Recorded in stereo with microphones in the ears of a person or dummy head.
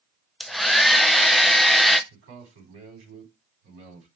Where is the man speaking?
80° right, 4.5 m.